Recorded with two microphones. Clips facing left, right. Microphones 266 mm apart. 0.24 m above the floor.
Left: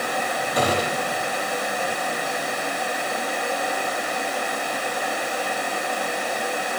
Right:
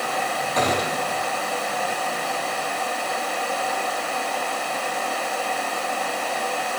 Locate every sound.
0.6 s a gunshot: 10° left (ahead or behind), 2.5 m